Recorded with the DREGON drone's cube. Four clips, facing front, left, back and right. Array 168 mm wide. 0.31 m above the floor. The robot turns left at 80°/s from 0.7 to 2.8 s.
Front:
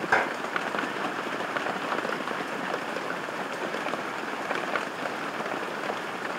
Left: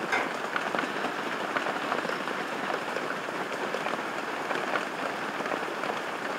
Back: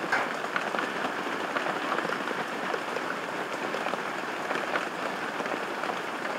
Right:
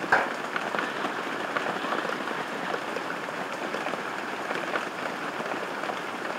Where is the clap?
60° right, 1.2 m.